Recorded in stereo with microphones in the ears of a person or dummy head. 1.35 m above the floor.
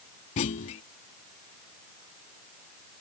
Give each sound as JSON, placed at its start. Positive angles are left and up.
{"t": 0.4, "sound": "a clunk", "side_deg": 25}